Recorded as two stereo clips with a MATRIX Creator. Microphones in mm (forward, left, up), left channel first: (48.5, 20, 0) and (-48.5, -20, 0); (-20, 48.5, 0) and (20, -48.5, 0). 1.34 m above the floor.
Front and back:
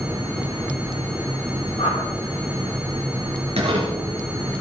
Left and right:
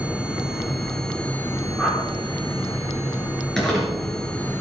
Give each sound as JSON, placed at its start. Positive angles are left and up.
{"t": 1.8, "sound": "a whoosh", "azimuth_deg": 25, "distance_m": 4.5}
{"t": 3.6, "sound": "crumpling", "azimuth_deg": -160, "distance_m": 5.0}